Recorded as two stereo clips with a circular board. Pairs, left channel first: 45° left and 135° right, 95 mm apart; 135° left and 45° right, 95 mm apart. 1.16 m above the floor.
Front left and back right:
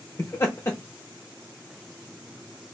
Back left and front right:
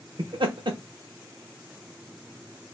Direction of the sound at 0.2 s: 15° right.